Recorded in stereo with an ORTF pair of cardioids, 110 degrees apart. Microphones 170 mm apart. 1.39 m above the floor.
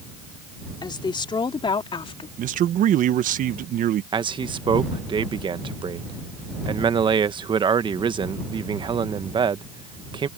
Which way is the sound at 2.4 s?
60° right.